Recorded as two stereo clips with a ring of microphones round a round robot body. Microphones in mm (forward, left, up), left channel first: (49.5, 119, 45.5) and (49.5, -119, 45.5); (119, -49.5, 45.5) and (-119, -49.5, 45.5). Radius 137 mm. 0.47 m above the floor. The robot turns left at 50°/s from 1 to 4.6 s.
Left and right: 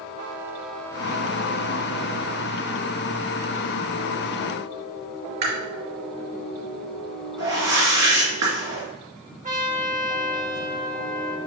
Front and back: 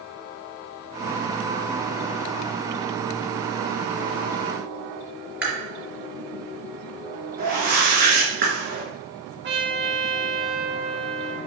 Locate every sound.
5.4 s chewing: 95° right, 3.5 m
7.4 s a whoosh: 125° right, 2.5 m
9.4 s a trumpet: 145° right, 1.2 m